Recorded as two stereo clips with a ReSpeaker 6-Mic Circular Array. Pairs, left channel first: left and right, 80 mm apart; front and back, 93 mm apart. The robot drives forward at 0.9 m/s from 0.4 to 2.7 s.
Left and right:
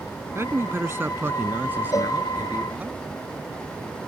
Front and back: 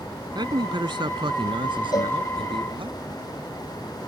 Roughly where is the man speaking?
Behind right.